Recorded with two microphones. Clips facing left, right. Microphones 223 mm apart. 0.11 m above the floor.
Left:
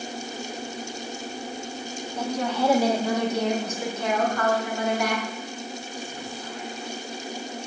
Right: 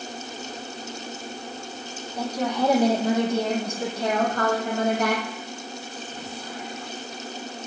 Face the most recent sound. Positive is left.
turn(degrees=-50)  # may be behind; listen again after turning